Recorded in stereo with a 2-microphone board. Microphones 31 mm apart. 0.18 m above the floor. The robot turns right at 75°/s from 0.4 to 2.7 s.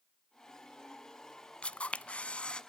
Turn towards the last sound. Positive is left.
turn(degrees=140)